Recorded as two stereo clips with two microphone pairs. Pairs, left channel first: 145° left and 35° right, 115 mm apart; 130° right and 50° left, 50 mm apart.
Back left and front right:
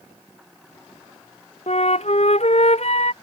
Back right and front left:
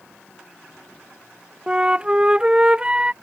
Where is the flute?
120° left.